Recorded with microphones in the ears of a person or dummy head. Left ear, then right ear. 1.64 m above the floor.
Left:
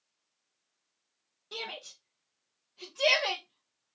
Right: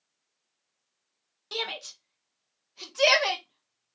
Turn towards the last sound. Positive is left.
turn(degrees=-35)  # may be behind; listen again after turning